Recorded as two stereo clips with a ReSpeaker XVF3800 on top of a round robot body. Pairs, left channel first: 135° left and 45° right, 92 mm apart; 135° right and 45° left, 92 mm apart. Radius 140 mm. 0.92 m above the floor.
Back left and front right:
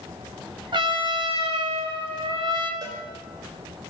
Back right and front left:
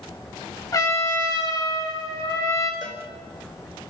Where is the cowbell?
90° right, 5.5 m.